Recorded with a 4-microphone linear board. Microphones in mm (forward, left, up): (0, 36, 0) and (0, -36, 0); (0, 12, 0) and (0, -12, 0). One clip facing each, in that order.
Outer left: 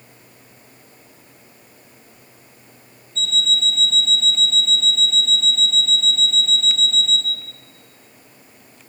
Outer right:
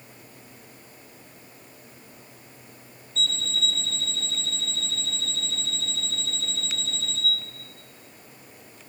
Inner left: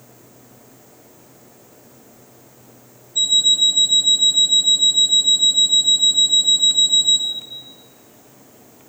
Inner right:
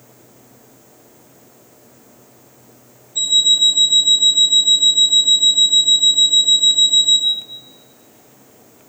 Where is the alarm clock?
5° right (ahead or behind), 5 m.